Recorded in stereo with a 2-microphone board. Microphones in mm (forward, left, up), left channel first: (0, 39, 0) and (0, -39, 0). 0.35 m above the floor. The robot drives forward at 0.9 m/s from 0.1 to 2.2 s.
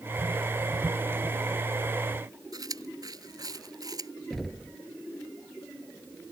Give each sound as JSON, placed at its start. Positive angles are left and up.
{"t": 2.5, "sound": "chewing", "side_deg": -55}
{"t": 4.3, "sound": "knocking", "side_deg": 0}